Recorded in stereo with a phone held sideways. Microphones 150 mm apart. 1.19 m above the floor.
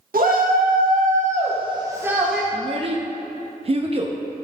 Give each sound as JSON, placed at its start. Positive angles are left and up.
{"t": 0.1, "sound": "a shout", "side_deg": -70, "distance_m": 1.7}
{"t": 2.5, "sound": "a child speaking", "side_deg": -40, "distance_m": 0.5}